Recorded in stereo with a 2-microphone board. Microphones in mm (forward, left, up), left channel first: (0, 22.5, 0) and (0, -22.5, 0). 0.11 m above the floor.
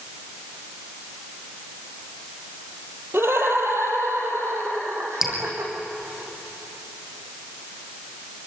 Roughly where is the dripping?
Centre.